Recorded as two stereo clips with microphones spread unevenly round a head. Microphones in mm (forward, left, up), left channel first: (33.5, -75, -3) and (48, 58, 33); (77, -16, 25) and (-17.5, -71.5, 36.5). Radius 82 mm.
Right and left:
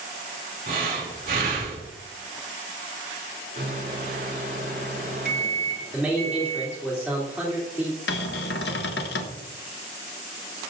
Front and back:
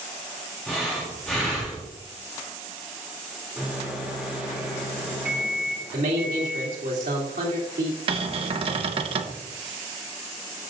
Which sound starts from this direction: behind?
A man speaking, at 5.9 s.